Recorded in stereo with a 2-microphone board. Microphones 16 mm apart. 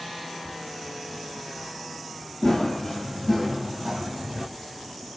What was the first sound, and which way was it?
Running footsteps, 30° left (ahead or behind).